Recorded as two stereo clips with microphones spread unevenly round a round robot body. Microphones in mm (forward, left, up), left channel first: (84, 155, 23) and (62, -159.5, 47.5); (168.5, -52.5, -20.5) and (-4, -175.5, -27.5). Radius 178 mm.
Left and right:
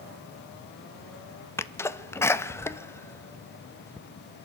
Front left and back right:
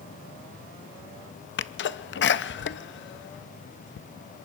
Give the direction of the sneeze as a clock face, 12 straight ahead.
12 o'clock.